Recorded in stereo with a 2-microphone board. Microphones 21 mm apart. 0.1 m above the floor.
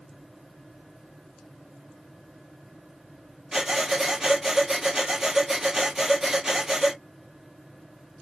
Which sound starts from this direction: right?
Breathing, at 3.5 s.